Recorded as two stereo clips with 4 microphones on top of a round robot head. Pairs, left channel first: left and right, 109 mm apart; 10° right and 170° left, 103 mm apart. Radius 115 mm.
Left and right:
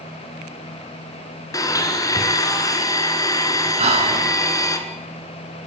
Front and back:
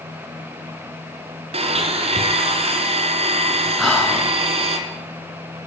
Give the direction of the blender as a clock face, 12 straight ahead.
7 o'clock.